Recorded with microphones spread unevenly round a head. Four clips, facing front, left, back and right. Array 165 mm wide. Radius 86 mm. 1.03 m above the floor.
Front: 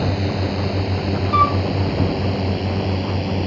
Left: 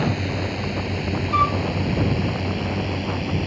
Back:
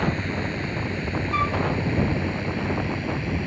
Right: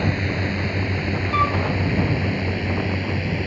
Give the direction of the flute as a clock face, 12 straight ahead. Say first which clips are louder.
Left 1 dB, front 9 dB; 12 o'clock.